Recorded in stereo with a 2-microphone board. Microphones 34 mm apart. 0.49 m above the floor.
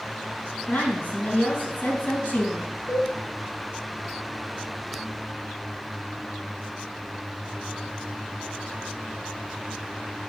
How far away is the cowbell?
About 4 m.